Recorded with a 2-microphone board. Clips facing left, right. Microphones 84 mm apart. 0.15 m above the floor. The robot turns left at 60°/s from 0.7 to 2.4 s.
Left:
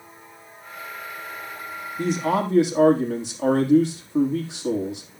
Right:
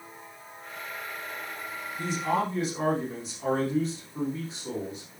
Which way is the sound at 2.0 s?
45° left (ahead or behind).